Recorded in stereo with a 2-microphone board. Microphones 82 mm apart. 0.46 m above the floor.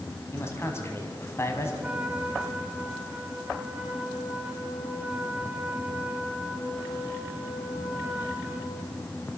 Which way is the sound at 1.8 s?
15° right (ahead or behind).